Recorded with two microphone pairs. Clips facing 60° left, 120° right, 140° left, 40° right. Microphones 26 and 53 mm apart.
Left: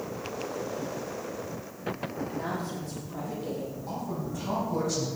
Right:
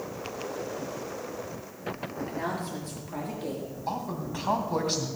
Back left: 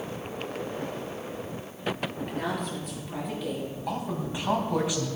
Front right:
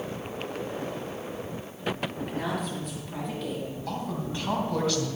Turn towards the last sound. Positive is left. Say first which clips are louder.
# right 5 dB, back left 2 dB
turn(degrees=-150)